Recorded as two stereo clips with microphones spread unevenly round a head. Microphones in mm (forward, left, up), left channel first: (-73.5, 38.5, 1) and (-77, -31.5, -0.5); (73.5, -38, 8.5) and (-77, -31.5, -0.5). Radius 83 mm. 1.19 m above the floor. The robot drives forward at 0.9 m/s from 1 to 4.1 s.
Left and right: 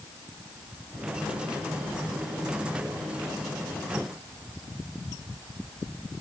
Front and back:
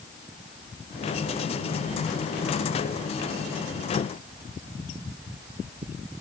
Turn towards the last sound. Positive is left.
No sound to turn to.